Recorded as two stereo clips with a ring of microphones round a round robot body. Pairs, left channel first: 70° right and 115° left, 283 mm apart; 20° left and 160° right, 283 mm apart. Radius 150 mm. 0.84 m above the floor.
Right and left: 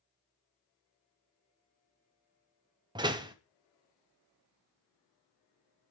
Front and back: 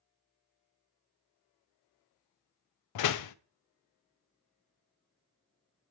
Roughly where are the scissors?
No scissors in this recording.